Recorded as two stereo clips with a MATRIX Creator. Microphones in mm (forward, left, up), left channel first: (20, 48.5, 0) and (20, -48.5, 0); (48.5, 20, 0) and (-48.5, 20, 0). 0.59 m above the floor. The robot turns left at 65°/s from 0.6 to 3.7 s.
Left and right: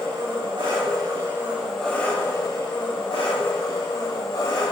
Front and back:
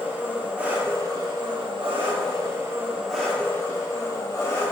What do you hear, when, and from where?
0.0 s an engine running: 105° right, 3 m; by 4.7 s 50° left, 3 m